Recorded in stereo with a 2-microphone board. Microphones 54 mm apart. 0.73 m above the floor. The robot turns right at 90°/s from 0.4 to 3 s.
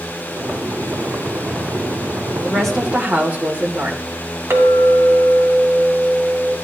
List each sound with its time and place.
2.4 s a woman speaking: 155° left, 1.7 m; by 4.1 s 150° right, 1.7 m
4.5 s a clink: 50° right (ahead or behind), 2 m